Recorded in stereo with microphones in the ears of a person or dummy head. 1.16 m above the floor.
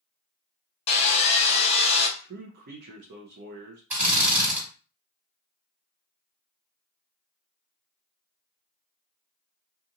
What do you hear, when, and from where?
0.9 s sawing: 30° left (ahead or behind), 1.1 m
2.2 s a man speaking: 55° right (ahead or behind), 0.7 m
3.9 s a drill: 10° right (ahead or behind), 1.9 m